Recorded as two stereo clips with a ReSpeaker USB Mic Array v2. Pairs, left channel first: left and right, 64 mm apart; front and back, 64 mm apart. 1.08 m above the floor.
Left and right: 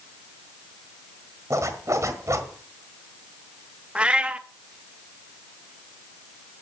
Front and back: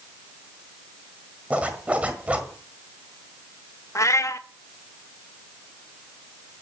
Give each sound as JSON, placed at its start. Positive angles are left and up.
{"t": 1.5, "sound": "a zipper", "azimuth_deg": -115, "distance_m": 1.5}
{"t": 4.0, "sound": "a cat meowing", "azimuth_deg": -20, "distance_m": 0.6}